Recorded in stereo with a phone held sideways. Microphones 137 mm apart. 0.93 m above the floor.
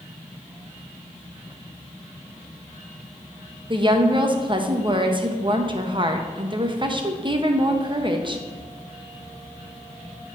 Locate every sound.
3.7 s a woman speaking: 35° right (ahead or behind), 0.7 m